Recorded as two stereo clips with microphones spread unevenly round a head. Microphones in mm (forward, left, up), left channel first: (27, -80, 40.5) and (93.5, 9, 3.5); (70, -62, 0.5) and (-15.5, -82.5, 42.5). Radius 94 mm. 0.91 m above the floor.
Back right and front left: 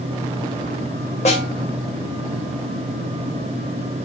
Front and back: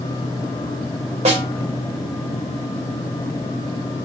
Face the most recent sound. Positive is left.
turn(degrees=175)